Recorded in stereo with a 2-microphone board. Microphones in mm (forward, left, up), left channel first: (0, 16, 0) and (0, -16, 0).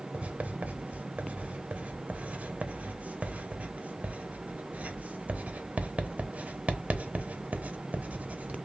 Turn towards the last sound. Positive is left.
turn(degrees=-50)  # may be behind; listen again after turning